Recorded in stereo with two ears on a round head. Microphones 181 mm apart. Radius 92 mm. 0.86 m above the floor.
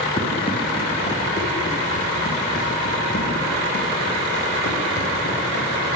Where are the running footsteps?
25° left (ahead or behind), 7 m; by 5.9 s 65° left (ahead or behind), 11 m.